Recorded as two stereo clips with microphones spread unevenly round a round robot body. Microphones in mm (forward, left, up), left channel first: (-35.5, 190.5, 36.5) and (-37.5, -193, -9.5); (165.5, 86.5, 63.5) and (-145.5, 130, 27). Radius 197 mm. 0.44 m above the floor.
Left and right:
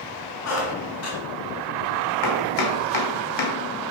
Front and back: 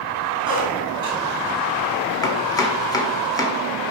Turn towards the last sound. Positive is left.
turn(degrees=75)